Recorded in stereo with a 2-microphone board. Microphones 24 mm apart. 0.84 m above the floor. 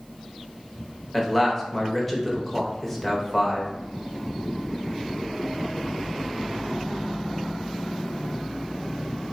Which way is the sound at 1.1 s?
5° left (ahead or behind).